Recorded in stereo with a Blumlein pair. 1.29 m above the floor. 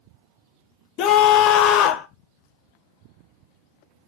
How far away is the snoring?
I don't hear snoring.